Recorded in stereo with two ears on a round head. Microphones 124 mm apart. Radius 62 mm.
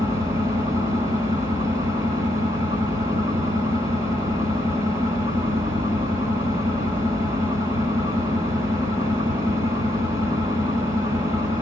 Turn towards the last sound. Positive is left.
turn(degrees=-25)  # may be behind; listen again after turning